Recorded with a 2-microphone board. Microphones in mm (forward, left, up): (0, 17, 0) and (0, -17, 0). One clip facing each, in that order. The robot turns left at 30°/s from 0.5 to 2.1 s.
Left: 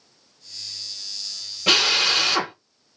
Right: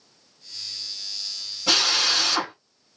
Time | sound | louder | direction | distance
1.7 | a drill | left 3 dB | 60° left (ahead or behind) | 3 m